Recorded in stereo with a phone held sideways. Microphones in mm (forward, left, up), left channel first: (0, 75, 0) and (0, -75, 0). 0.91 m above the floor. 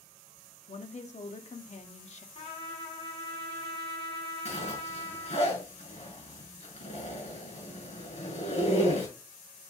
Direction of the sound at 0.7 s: 50° left (ahead or behind).